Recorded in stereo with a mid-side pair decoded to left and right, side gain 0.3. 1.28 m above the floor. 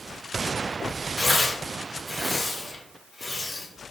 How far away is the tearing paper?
About 1.8 m.